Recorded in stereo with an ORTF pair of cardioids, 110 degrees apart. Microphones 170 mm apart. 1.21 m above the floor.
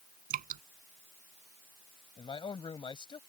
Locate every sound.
0.3 s dripping: 55° right
2.2 s a man speaking: 30° left